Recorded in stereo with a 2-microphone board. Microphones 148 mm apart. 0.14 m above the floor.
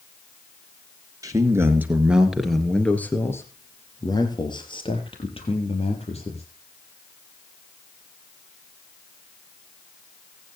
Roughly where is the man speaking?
Right.